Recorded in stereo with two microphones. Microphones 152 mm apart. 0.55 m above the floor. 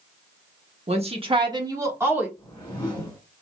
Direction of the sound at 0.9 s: 45° right (ahead or behind).